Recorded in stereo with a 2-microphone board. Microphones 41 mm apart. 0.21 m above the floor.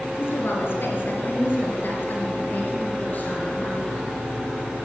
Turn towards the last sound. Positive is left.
turn(degrees=35)  # may be behind; listen again after turning